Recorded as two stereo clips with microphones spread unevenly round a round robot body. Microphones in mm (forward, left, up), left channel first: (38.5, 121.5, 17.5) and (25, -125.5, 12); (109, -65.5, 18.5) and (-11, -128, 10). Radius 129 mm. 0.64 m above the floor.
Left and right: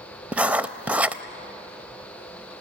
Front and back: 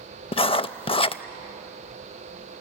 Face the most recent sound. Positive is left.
turn(degrees=-10)